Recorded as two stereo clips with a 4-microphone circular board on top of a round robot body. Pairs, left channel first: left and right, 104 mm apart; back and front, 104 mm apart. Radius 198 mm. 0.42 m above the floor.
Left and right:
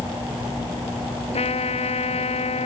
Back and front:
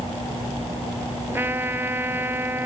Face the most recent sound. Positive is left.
turn(degrees=70)